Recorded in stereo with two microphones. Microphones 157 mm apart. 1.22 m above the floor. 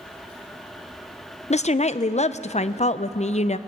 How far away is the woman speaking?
About 0.6 m.